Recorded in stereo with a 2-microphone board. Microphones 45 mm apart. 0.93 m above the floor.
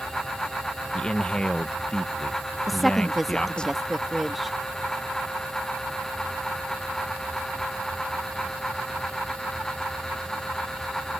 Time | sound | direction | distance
0.9 | a man speaking | 20° left (ahead or behind) | ?
2.7 | a woman speaking | centre (ahead or behind) | ?